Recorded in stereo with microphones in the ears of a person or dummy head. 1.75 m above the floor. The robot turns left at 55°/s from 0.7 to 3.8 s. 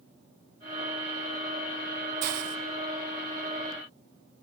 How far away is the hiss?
About 0.7 m.